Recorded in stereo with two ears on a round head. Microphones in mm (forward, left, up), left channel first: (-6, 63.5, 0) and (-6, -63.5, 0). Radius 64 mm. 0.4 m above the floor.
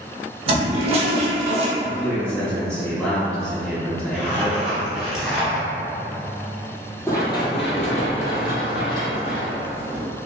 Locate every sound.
0.5 s a toilet flushing: 40° right (ahead or behind), 0.6 m
1.8 s a man speaking: 10° left (ahead or behind), 1.4 m
4.1 s a zipper: 5° right (ahead or behind), 1.1 m
7.1 s running footsteps: 20° left (ahead or behind), 0.7 m; by 10.1 s 70° left (ahead or behind), 1.4 m